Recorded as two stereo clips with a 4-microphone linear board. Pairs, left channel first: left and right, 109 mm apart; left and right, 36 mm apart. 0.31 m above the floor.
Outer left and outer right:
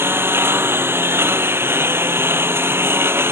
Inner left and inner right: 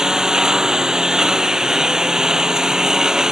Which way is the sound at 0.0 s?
20° right (ahead or behind).